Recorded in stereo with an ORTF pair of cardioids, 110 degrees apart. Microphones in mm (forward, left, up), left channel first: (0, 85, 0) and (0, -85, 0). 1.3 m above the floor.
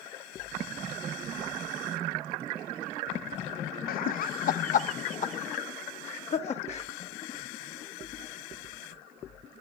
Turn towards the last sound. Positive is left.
turn(degrees=40)